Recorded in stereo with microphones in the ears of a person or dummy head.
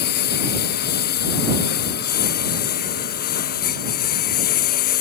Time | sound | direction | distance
0.0 | a lawn mower | 50° left (ahead or behind) | ?